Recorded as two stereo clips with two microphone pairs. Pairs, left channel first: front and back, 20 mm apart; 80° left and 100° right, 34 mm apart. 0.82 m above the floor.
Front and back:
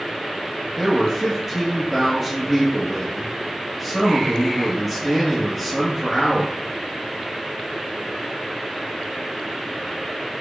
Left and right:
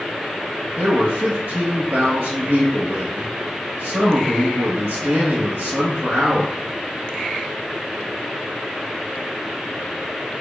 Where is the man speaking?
100° right, 1.1 m.